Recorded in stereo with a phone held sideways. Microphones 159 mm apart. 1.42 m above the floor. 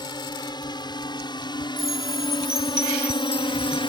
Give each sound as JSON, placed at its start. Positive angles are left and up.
{"t": 0.0, "sound": "a drone", "side_deg": 25}
{"t": 1.8, "sound": "a chime", "side_deg": 35}